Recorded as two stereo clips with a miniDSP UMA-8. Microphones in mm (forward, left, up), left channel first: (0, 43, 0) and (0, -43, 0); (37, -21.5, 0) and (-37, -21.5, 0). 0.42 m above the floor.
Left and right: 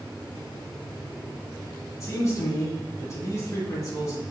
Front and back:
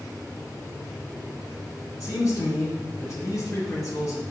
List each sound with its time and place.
2.0 s a man speaking: 35° left, 3 m